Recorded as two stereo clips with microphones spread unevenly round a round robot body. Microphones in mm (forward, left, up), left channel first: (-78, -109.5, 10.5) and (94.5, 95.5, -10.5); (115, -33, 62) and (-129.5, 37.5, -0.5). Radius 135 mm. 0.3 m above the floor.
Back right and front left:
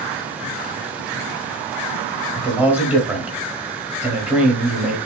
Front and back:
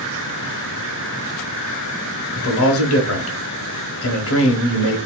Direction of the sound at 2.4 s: 30° right.